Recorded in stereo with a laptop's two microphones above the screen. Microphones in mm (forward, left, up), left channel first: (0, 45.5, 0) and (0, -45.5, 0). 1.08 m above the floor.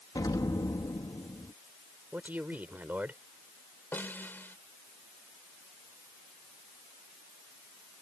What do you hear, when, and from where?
0.1 s an explosion: 45° left (ahead or behind)
2.1 s a man speaking: 20° right (ahead or behind)
3.9 s a snare drum: 20° left (ahead or behind)